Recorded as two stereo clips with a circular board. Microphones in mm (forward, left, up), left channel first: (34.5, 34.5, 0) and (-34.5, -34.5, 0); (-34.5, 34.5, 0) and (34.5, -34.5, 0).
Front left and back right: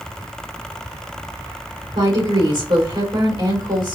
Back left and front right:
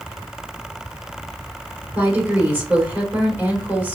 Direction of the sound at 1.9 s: 105° right.